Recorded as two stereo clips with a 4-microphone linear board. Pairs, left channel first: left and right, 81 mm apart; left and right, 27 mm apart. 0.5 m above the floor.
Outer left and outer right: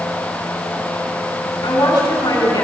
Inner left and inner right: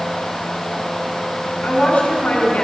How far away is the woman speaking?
About 5 m.